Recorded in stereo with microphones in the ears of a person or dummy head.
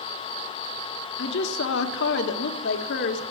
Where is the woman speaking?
60° left (ahead or behind), 1.2 m.